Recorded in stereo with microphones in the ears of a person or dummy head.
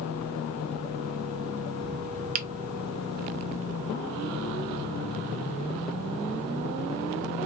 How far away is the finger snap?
About 0.6 m.